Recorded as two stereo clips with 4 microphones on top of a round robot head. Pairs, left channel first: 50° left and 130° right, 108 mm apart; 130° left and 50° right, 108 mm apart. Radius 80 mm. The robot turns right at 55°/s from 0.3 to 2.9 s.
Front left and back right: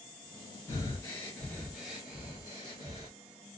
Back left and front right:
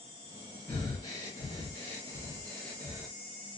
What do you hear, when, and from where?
0.7 s breathing: 80° left, 0.7 m; by 3.1 s 155° right, 0.7 m